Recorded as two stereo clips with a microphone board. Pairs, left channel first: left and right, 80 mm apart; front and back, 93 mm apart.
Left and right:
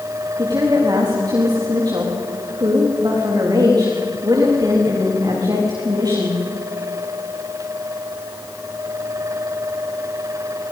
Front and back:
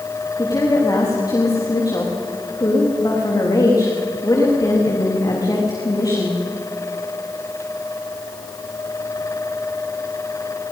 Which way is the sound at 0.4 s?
50° right.